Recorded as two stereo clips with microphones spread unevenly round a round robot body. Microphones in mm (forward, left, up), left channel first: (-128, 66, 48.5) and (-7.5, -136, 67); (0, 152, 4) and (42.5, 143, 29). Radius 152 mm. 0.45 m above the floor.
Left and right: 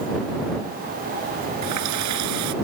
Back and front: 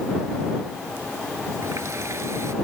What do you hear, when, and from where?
1.6 s a running tap: 45° right